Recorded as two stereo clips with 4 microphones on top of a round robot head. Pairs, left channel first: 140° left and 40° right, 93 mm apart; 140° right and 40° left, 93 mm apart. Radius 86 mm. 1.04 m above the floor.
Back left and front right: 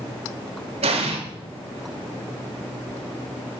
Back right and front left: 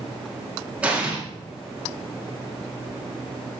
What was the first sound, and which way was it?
An explosion, 35° right.